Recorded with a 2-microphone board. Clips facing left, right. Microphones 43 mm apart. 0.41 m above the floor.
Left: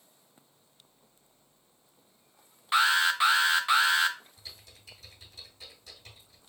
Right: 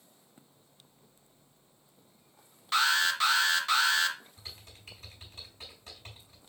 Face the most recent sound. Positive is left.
turn(degrees=-40)  # may be behind; listen again after turning